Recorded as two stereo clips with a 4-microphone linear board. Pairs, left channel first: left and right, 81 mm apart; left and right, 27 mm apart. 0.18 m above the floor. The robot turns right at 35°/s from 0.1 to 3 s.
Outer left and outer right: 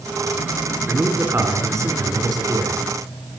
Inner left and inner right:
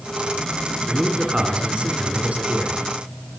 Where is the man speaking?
155° right, 2.5 m; by 2.8 s 90° right, 2.5 m.